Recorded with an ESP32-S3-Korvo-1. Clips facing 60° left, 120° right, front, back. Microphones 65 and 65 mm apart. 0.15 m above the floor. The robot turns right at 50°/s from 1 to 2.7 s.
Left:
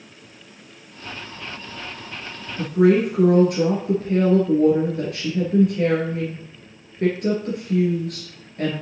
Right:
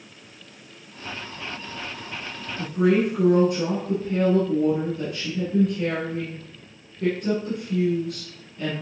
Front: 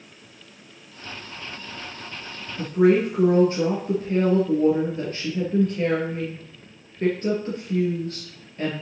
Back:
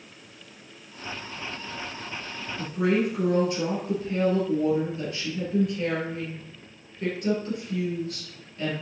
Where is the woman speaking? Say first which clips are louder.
Left 4 dB, front 6 dB; 45° left, 2.5 m; by 8.7 s 50° left, 2.5 m.